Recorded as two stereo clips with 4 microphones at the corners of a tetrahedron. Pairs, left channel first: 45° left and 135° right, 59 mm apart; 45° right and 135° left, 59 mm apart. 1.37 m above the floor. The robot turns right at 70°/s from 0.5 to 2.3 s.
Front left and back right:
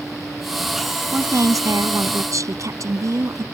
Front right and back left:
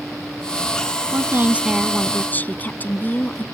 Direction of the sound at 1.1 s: 170° left.